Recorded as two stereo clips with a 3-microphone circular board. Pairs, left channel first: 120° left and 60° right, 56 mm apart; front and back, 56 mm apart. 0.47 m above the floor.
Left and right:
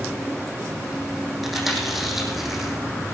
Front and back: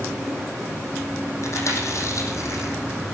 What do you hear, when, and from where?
1.4 s chewing: 25° left, 3.5 m